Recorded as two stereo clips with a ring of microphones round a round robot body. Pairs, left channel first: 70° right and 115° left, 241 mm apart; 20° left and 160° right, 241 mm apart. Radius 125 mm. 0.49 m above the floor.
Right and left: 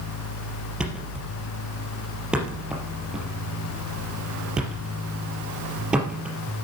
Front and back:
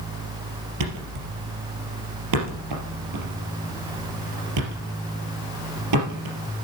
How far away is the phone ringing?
I don't hear a phone ringing.